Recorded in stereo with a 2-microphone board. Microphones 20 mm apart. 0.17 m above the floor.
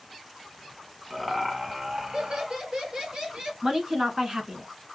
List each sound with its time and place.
1.1 s laughter: 10° right (ahead or behind), 1.7 m; by 3.5 s 50° right (ahead or behind), 3.5 m
3.6 s a woman speaking: 35° right (ahead or behind), 1.4 m